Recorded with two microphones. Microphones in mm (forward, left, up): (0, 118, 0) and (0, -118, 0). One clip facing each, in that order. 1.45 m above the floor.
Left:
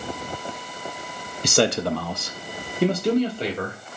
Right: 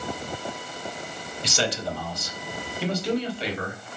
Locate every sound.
1.4 s a man speaking: 50° left (ahead or behind), 0.6 m; by 3.8 s 45° left (ahead or behind), 1.7 m